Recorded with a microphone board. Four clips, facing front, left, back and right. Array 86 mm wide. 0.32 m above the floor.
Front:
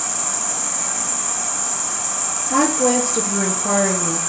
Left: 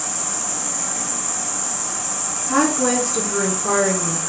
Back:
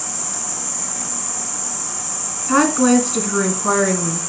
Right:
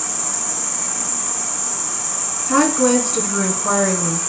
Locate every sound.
0.0 s an insect: 10° left, 1.5 m
2.5 s a woman speaking: 170° right, 2.5 m